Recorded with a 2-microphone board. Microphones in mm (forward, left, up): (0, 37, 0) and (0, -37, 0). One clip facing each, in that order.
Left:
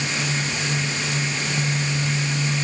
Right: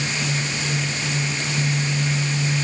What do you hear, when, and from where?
Only background noise.